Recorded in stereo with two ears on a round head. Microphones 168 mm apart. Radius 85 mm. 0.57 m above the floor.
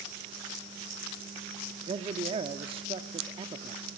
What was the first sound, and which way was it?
A man speaking, 30° right (ahead or behind).